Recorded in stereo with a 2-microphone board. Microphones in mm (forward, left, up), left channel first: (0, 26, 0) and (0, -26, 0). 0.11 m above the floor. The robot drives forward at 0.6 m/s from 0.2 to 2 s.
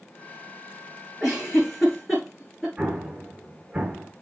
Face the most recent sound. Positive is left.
turn(degrees=-25)  # may be behind; listen again after turning